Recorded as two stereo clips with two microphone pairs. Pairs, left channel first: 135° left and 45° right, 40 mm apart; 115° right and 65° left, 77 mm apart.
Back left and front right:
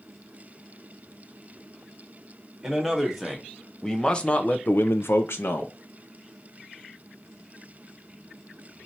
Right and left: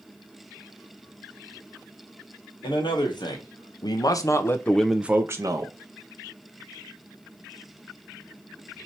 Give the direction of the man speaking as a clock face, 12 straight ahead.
4 o'clock.